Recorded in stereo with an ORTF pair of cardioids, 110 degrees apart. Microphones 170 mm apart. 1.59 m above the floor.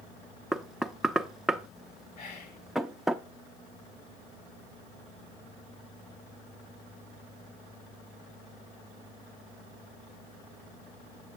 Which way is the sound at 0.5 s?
Straight ahead.